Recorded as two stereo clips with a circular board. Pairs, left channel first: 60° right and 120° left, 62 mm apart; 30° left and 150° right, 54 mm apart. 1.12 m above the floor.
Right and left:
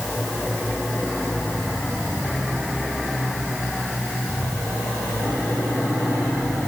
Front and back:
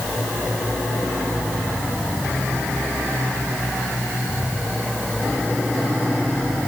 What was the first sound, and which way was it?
Only background noise.